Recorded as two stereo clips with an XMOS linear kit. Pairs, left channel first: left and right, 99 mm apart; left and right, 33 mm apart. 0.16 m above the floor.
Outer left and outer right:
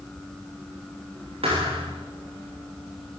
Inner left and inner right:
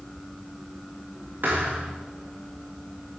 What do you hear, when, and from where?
1.4 s a thud: 75° right (ahead or behind), 8 m